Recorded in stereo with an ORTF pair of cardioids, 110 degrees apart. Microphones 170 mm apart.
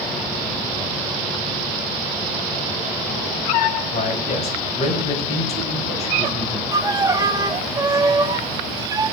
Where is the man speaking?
40° left, 7.5 m.